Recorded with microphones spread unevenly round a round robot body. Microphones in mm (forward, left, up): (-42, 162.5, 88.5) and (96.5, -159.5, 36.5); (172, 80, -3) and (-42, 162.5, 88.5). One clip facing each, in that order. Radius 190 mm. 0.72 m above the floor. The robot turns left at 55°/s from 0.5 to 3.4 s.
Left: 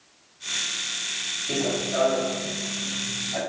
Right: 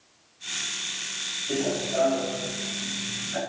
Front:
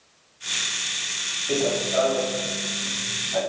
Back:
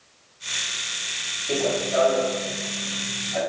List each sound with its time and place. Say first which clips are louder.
1.5 s running footsteps: even, even; 70° left, 1.2 m; by 3.4 s straight ahead, 2.5 m